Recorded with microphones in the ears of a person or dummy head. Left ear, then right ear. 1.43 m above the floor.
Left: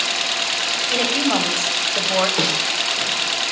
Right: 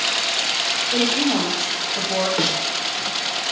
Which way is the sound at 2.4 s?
5° left (ahead or behind).